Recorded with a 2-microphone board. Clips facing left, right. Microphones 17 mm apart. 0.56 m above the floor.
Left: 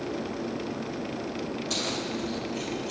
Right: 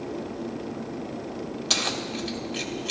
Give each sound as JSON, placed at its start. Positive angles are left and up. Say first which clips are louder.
{"t": 1.7, "sound": "keys jangling", "louder": "right 6 dB", "side_deg": -50, "distance_m": 1.7}